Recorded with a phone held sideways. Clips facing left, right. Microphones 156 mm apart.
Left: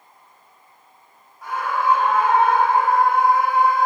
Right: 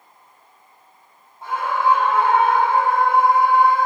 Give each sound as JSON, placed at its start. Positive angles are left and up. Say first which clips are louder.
{"t": 1.4, "sound": "a scream", "louder": "right 2 dB", "side_deg": -30, "distance_m": 3.5}